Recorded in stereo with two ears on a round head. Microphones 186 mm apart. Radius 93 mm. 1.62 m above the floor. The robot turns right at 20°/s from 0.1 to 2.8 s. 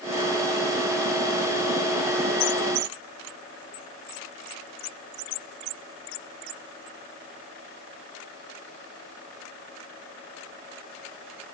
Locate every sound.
Only background noise.